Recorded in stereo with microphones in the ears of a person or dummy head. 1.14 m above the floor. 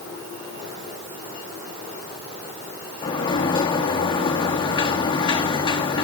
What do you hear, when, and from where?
3.0 s a sliding door: 20° left (ahead or behind), 1.3 m